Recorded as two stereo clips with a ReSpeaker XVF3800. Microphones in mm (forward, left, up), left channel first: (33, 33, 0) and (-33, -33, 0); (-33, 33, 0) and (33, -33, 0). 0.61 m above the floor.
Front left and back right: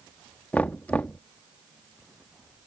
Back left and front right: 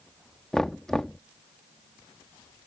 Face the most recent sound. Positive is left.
turn(degrees=65)